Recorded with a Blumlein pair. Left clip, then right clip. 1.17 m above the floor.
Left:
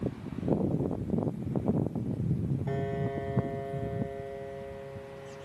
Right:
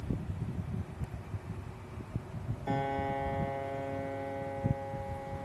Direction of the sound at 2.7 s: 15° right.